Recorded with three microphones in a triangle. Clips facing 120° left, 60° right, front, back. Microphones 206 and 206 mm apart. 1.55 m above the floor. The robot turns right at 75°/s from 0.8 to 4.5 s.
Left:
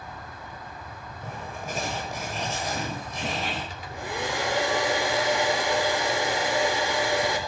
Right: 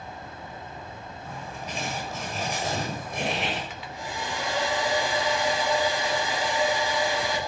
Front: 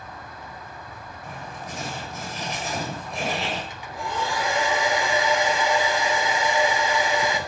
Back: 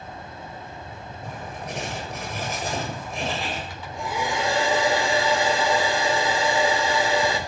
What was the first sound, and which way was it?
Writing, 130° left.